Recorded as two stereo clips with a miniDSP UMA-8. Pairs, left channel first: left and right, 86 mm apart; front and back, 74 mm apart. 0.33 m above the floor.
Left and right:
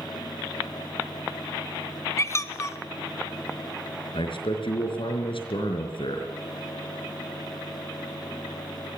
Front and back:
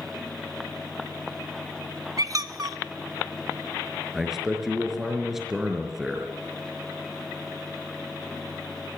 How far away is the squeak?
About 1.5 m.